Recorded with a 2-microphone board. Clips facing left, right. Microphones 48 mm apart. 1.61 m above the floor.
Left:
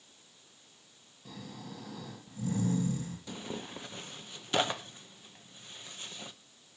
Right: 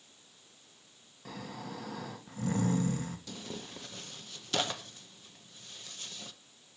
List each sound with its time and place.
1.2 s snoring: 65° right (ahead or behind), 1.6 m
3.3 s tearing paper: 20° left (ahead or behind), 0.7 m